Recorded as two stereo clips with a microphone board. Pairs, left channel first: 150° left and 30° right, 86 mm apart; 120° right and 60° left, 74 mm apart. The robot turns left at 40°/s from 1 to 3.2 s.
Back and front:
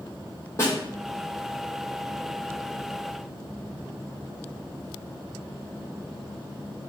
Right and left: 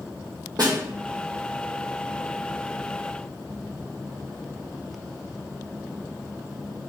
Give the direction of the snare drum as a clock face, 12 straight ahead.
9 o'clock.